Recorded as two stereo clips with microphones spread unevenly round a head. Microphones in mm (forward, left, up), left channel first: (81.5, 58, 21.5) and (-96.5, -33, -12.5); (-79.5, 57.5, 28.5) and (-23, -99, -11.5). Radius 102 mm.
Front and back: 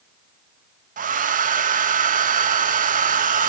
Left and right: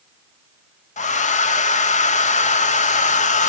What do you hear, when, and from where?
1.0 s a hair dryer: 150° left, 0.9 m